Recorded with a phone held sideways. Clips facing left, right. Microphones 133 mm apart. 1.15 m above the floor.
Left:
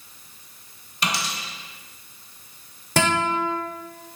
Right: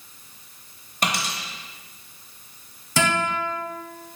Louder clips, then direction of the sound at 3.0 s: Left 2 dB; 60° left (ahead or behind).